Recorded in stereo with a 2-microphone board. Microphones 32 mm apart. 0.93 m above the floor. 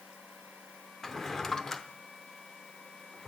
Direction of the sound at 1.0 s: 15° left (ahead or behind).